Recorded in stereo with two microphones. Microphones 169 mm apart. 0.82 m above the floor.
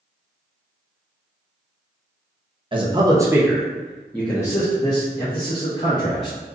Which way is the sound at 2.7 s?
30° right (ahead or behind).